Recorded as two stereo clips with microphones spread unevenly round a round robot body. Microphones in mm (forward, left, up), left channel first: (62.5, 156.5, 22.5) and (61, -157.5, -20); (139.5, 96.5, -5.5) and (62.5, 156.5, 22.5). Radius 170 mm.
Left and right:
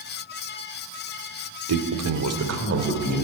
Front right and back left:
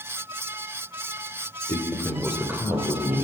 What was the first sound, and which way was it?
A man speaking, 80° right.